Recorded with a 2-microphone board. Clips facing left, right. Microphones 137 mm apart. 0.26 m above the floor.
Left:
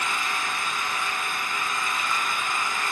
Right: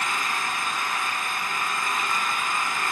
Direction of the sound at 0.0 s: 50° right (ahead or behind).